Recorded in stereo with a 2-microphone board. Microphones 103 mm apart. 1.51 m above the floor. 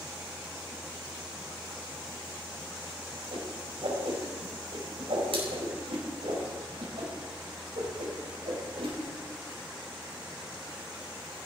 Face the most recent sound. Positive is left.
turn(degrees=-70)  # may be behind; listen again after turning